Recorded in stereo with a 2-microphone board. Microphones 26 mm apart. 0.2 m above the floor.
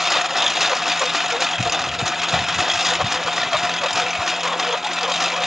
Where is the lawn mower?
10° right (ahead or behind).